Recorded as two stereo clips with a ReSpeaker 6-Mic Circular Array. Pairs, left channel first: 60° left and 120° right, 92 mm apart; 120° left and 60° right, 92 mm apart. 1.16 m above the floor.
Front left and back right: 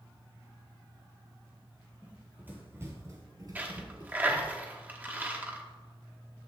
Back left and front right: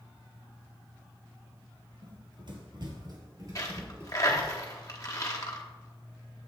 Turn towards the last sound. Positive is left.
turn(degrees=170)